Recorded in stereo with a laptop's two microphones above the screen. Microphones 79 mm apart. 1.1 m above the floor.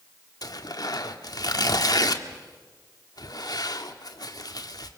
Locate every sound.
0.4 s tearing paper: 55° left (ahead or behind), 1.6 m